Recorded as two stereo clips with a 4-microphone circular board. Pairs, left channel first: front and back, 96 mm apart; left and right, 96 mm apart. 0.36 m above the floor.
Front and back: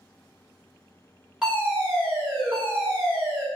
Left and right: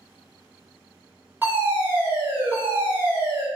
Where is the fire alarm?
110° right, 1.9 m.